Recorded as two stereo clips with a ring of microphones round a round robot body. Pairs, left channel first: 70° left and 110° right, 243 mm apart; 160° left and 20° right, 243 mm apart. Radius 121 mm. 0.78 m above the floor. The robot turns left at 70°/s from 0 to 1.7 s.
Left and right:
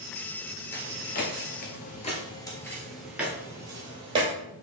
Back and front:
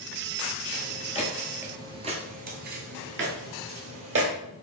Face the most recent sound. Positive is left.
turn(degrees=-45)